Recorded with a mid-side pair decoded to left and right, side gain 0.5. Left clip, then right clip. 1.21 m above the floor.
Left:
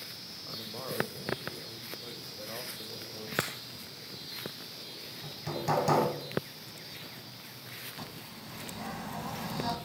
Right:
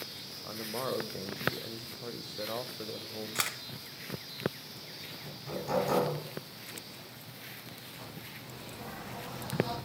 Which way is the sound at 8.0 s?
65° left.